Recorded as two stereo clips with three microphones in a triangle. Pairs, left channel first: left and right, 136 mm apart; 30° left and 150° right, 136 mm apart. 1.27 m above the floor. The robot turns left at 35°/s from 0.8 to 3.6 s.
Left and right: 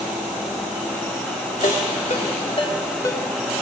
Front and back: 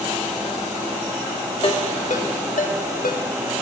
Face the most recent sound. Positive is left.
turn(degrees=5)